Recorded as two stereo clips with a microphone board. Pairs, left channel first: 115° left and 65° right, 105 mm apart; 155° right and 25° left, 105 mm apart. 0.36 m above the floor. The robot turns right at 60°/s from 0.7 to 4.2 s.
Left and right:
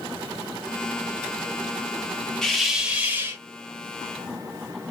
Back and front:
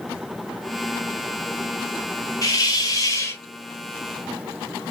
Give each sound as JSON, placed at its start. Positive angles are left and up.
{"t": 2.4, "sound": "a hiss", "azimuth_deg": -170, "distance_m": 1.2}